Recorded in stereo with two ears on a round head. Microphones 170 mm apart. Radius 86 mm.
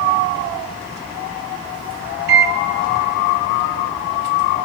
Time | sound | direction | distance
2.3 | a microwave | 60° right (ahead or behind) | 0.8 m